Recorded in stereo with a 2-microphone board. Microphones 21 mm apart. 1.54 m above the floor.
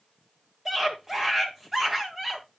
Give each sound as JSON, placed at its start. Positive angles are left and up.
{"t": 0.7, "sound": "a scream", "side_deg": -15, "distance_m": 1.7}